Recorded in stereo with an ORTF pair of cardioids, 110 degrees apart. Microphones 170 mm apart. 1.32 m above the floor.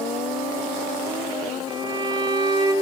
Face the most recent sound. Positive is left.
turn(degrees=-30)